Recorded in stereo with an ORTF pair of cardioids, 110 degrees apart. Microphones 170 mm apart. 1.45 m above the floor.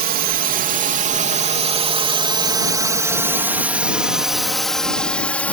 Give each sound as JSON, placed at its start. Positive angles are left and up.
{"t": 0.0, "sound": "a drone", "azimuth_deg": -65}